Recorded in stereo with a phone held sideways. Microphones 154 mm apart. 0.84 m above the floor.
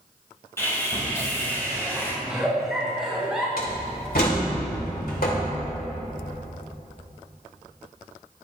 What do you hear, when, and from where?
0.6 s sawing: 15° left (ahead or behind), 3.5 m
2.2 s a giggle: 5° right (ahead or behind), 3 m
3.6 s a door slam: 80° left, 2.5 m